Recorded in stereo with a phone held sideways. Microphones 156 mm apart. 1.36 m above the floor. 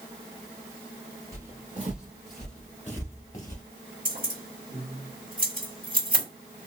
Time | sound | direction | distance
1.3 | footsteps | 20° right (ahead or behind) | 1.4 m
4.0 | keys jangling | 60° right (ahead or behind) | 1.6 m